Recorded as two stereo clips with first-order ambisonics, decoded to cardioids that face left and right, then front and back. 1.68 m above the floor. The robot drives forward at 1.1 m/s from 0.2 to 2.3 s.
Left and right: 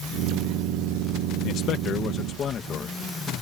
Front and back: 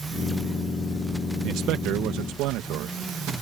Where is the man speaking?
135° left; by 3.0 s 150° left.